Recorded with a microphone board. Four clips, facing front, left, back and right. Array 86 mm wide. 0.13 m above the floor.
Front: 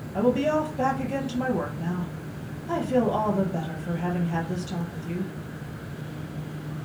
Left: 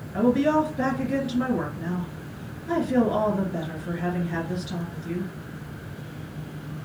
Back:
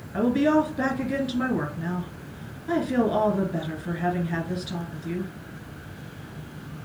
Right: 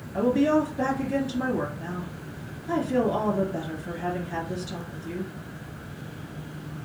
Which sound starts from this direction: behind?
A woman speaking, at 0.1 s.